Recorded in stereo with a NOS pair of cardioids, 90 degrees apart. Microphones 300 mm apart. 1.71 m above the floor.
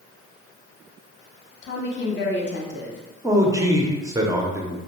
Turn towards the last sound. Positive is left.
turn(degrees=-10)